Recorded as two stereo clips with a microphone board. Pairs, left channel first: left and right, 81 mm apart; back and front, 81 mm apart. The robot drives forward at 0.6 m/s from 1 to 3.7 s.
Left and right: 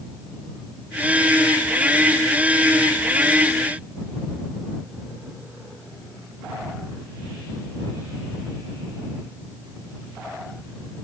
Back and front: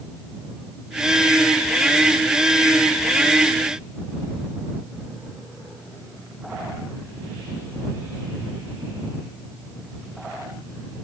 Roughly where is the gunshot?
No gunshot in this recording.